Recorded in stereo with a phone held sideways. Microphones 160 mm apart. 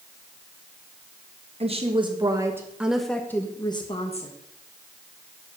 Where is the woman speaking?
40° right (ahead or behind), 1.4 m; by 4.3 s 40° left (ahead or behind), 1.2 m.